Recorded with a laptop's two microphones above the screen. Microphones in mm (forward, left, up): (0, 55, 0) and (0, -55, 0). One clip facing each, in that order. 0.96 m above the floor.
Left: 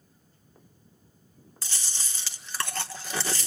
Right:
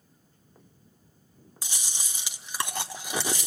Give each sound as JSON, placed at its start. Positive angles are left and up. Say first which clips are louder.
{"t": 1.6, "sound": "chewing", "louder": "even", "side_deg": -15, "distance_m": 1.4}